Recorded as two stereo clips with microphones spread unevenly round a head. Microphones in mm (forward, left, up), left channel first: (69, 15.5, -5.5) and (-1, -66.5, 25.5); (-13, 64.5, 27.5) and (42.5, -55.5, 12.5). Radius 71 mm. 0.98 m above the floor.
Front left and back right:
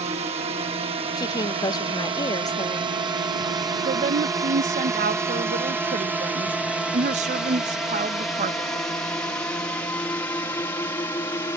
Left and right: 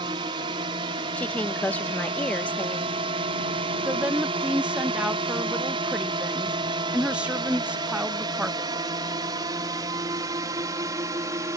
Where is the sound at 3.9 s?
140° right.